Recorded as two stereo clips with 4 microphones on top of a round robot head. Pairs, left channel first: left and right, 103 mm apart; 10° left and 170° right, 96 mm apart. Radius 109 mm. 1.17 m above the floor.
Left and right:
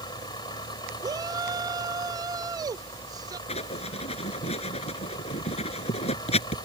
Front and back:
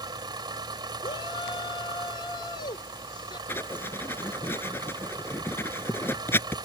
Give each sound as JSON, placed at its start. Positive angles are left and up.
{"t": 0.0, "sound": "an engine running", "azimuth_deg": 145}
{"t": 1.0, "sound": "a shout", "azimuth_deg": -40}
{"t": 3.5, "sound": "writing", "azimuth_deg": 75}